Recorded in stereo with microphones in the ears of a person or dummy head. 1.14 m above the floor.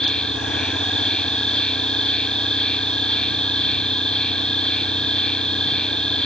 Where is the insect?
Centre (ahead or behind).